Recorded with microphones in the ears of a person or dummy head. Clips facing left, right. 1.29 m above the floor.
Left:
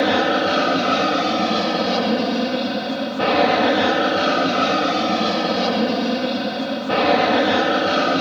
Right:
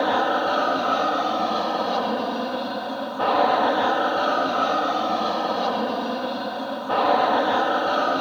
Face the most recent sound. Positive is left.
turn(degrees=35)  # may be behind; listen again after turning